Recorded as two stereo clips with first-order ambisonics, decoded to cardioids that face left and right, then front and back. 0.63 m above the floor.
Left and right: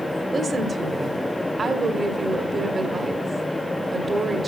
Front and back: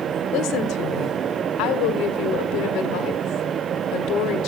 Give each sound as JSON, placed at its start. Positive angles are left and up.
{"t": 0.3, "sound": "a woman speaking", "azimuth_deg": -20, "distance_m": 1.7}